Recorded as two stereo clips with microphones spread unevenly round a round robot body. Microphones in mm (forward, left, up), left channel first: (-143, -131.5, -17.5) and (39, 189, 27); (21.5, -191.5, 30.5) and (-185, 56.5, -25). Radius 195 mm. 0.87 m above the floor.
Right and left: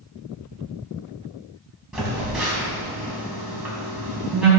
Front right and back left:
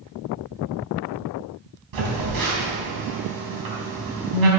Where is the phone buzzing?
145° left, 3.5 m.